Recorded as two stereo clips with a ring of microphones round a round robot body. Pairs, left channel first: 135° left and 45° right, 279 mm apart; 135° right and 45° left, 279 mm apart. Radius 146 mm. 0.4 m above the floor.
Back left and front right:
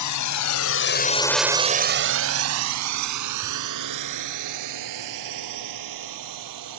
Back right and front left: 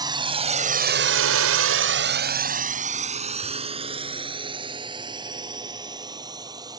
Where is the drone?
120° left; by 6.8 s 30° right.